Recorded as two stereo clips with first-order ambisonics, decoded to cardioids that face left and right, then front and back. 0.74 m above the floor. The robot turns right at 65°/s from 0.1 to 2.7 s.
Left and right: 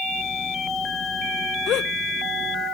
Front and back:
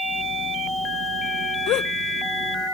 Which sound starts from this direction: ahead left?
A gasp, at 1.7 s.